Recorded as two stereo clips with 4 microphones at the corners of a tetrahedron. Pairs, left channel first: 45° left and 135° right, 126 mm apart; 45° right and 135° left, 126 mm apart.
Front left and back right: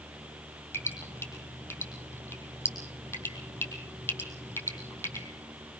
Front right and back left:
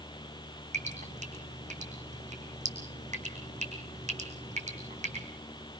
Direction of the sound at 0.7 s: 115° left.